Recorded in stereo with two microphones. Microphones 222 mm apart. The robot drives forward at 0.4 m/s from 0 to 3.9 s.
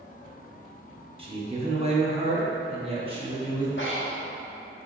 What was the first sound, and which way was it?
A man speaking, 25° right (ahead or behind).